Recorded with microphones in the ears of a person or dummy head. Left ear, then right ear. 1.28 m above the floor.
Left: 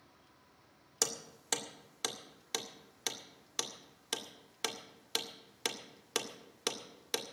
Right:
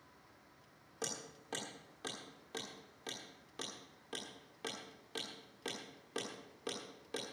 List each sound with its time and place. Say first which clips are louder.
1.0 s hammering: left 7 dB; 60° left (ahead or behind), 1.8 m